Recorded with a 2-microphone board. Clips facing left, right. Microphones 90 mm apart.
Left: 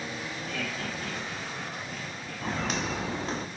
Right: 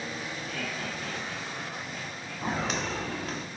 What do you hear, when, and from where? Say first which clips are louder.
0.5 s laughter: left 2 dB; 45° left (ahead or behind), 2 m; by 2.9 s 55° left (ahead or behind), 4.5 m
2.4 s footsteps: right 1 dB; 10° right (ahead or behind), 0.9 m; by 3.5 s 40° left (ahead or behind), 0.7 m